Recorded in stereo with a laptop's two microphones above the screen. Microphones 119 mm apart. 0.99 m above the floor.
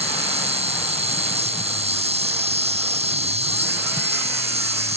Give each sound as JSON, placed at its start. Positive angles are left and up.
{"t": 0.0, "sound": "an insect", "side_deg": -65}